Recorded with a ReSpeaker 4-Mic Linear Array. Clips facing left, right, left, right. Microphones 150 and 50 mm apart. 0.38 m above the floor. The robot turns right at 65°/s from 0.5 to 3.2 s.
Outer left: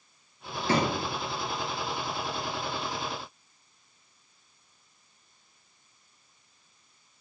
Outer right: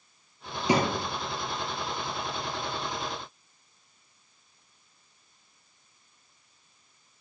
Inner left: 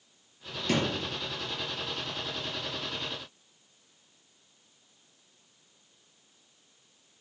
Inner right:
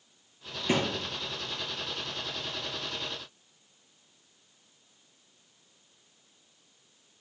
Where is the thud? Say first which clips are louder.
Outer right 1 dB, even; 15° right (ahead or behind), 3 m; by 1.1 s 5° left (ahead or behind), 3 m.